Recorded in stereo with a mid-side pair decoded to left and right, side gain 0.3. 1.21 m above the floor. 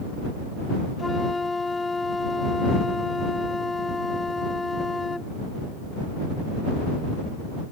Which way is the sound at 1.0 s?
35° left.